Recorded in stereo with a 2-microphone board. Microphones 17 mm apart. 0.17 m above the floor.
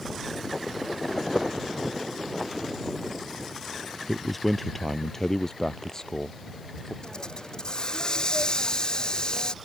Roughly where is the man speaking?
Centre.